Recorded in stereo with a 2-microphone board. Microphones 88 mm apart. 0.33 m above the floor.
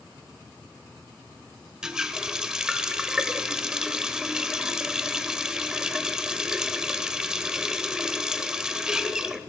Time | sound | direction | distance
1.8 | a running tap | 5° right (ahead or behind) | 0.6 m